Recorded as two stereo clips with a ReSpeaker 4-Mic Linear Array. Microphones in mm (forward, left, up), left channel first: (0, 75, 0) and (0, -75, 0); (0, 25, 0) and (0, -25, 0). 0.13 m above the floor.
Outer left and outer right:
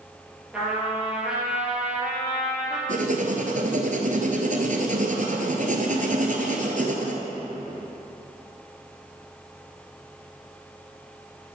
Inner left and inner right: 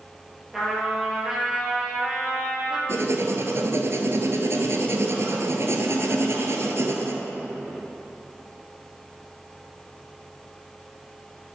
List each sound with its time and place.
0.5 s a trumpet: 5° right (ahead or behind), 3 m
2.9 s writing: 60° right (ahead or behind), 1.3 m